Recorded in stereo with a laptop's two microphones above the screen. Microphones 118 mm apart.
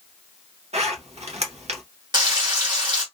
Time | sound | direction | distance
0.7 | a zipper | 65° right (ahead or behind) | 0.9 m
2.1 | frying | 40° right (ahead or behind) | 1.1 m